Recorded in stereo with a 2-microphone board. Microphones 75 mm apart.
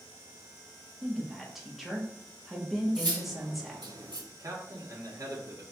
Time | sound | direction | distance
1.0 | a woman speaking | centre (ahead or behind) | 1.1 m
3.0 | cutlery clinking | 75° right (ahead or behind) | 0.9 m
4.3 | a man speaking | 50° right (ahead or behind) | 1.4 m